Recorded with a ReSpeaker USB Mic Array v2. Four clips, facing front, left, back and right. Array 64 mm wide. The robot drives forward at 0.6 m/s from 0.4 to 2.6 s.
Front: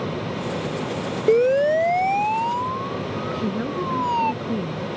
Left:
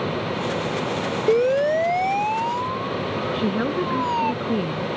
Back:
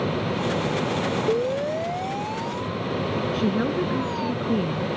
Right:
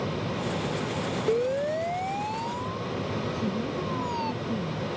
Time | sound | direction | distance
1.3 | a siren | 35° left | ?
3.3 | a woman speaking | 100° left | ?